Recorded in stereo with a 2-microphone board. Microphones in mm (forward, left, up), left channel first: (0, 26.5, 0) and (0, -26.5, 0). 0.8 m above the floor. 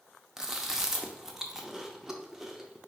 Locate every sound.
0.4 s chewing: 10° right (ahead or behind), 0.5 m